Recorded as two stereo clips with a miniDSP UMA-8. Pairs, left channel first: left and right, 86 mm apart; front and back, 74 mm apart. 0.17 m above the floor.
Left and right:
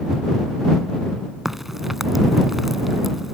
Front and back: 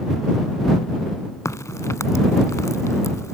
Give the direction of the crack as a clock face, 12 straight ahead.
12 o'clock.